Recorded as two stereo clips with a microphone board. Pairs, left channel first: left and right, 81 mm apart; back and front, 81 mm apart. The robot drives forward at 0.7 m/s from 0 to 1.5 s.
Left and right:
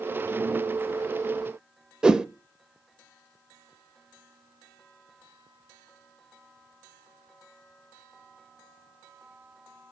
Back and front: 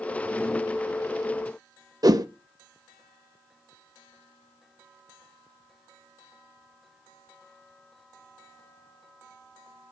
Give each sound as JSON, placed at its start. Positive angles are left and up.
{"t": 2.0, "sound": "a whoosh", "azimuth_deg": -15, "distance_m": 0.5}